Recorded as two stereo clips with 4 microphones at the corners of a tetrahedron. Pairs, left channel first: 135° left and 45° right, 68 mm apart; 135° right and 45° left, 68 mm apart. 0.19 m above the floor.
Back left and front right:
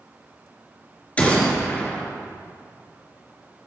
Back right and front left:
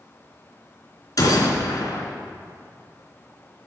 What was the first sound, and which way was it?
A gunshot, 155° right.